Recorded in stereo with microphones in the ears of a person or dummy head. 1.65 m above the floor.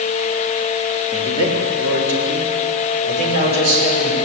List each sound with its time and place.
1.1 s a man speaking: 35° left (ahead or behind), 4 m; by 4.2 s 50° left (ahead or behind), 7 m